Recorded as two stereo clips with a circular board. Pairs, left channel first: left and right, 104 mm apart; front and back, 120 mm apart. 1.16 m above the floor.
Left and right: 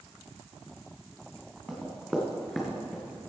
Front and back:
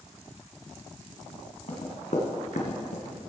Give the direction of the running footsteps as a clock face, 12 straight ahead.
12 o'clock.